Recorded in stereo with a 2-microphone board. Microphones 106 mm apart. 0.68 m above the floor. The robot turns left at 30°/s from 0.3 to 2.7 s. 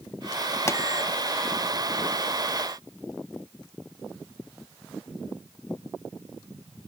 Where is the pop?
25° left (ahead or behind).